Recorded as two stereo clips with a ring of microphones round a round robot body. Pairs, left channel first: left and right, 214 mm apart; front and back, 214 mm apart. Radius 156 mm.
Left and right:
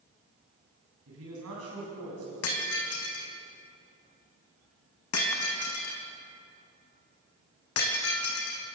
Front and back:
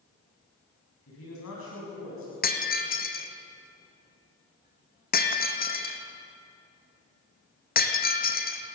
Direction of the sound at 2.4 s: 45° left.